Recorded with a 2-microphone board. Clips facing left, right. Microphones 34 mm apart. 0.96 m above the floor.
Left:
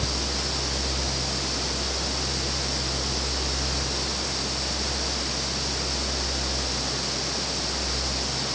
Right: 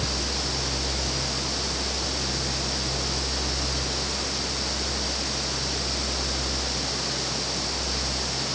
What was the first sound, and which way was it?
Only background noise.